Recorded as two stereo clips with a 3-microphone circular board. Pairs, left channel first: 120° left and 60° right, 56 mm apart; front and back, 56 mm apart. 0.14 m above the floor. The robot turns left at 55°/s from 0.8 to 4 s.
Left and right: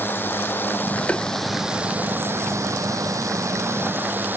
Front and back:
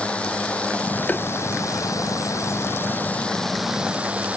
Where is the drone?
70° left; by 4.4 s 115° right.